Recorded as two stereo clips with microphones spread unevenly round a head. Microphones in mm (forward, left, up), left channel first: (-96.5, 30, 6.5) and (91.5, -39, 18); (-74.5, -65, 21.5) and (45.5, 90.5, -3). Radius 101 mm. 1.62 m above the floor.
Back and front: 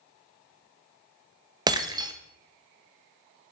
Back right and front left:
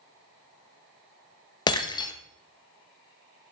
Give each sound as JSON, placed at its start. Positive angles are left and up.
{"t": 1.7, "sound": "breaking glass", "azimuth_deg": -80, "distance_m": 1.0}